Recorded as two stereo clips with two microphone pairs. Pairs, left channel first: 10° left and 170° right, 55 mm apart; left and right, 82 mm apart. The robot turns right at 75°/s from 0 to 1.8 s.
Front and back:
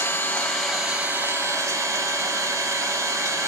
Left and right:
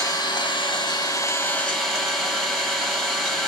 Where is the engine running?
45° left, 2.0 m; by 3.5 s straight behind, 2.0 m.